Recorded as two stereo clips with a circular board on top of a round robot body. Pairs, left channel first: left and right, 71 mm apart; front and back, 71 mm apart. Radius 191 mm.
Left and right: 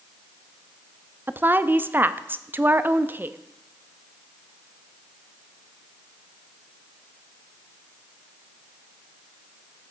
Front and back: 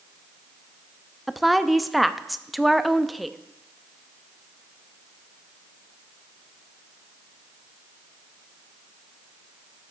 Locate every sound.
1.3 s a woman speaking: 90° right, 0.7 m